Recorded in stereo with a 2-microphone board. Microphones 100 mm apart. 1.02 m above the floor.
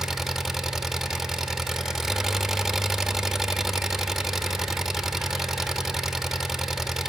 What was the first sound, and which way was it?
An engine running, 5° right (ahead or behind).